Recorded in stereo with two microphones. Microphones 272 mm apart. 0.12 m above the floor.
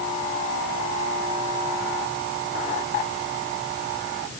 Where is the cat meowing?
No cat meowing in this recording.